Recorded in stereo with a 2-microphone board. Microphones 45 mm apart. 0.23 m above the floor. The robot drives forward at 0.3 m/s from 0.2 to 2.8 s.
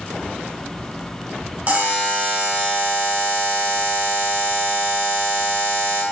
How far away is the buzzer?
About 0.9 m.